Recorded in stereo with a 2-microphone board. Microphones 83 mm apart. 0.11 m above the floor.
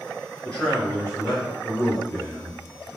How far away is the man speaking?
About 1.3 m.